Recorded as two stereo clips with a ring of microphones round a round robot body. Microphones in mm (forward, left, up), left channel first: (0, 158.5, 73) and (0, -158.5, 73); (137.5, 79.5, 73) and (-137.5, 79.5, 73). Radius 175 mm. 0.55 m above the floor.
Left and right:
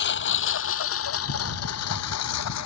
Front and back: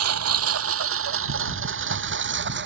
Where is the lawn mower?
150° left; by 2.7 s 130° left.